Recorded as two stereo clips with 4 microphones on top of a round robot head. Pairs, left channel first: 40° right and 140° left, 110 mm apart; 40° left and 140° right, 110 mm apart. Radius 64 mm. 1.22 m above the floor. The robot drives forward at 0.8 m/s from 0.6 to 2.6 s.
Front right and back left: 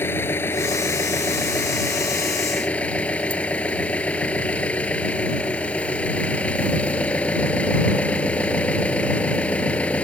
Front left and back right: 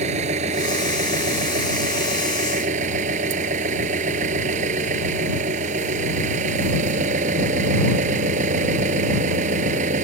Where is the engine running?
110° right; by 10.0 s 120° right.